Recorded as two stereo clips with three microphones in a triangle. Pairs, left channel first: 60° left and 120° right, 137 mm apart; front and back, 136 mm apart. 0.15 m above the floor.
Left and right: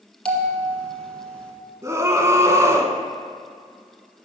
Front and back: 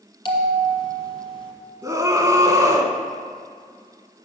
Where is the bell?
20° right, 1.5 m.